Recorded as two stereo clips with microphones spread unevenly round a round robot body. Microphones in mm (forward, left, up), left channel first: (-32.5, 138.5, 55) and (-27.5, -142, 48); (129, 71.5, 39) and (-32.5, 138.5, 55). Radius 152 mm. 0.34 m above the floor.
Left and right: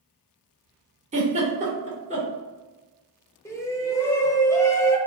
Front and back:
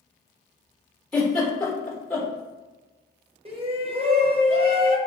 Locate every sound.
1.1 s a giggle: 90° right, 1.5 m
3.5 s a shout: 165° left, 0.9 m